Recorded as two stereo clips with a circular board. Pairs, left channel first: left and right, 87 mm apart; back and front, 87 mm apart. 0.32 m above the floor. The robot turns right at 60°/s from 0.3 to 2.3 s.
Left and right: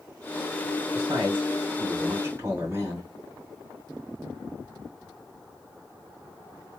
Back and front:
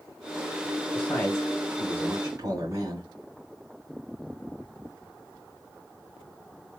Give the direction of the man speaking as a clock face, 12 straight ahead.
4 o'clock.